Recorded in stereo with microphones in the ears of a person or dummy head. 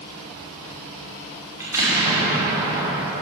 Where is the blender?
I don't hear a blender.